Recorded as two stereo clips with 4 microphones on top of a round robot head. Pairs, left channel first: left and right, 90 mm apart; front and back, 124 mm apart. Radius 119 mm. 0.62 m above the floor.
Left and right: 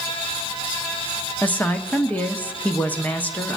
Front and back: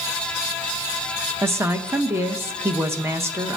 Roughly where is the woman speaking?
Behind left.